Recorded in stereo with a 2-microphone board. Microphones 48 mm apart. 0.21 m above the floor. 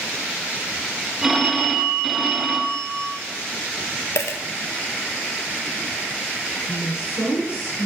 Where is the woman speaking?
60° left (ahead or behind), 3 m.